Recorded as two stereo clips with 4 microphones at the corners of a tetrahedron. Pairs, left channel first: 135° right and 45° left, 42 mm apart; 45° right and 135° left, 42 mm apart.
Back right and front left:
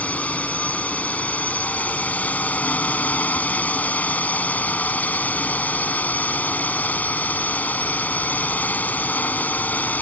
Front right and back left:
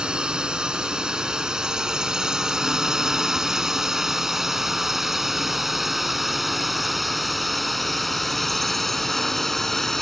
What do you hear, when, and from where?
0.0 s a drone: 170° right; by 10.0 s 130° right